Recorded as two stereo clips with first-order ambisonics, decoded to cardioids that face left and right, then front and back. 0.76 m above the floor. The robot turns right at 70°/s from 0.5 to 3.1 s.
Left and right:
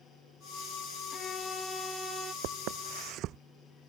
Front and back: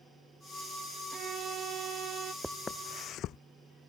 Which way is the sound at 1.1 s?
130° left.